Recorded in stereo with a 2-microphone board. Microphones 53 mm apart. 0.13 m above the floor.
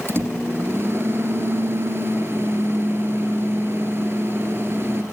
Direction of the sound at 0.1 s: 50° right (ahead or behind).